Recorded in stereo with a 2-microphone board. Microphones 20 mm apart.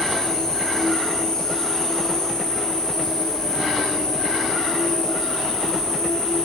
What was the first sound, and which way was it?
An insect, 40° left (ahead or behind).